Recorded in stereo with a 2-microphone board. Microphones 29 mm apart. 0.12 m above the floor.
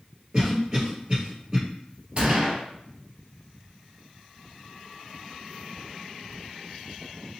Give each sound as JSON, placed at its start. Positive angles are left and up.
{"t": 0.3, "sound": "a cough", "side_deg": -30, "distance_m": 2.0}
{"t": 2.2, "sound": "a gunshot", "side_deg": -35, "distance_m": 1.2}